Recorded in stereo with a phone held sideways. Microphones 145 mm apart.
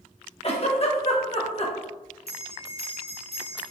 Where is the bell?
40° left (ahead or behind), 1.8 m.